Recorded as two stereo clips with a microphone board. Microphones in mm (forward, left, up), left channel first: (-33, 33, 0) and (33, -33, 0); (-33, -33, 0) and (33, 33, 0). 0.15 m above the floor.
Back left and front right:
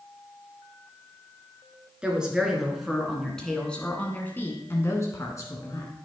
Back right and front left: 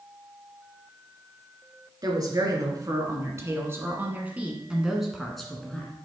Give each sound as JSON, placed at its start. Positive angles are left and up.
{"t": 2.0, "sound": "a woman speaking", "azimuth_deg": 30, "distance_m": 2.0}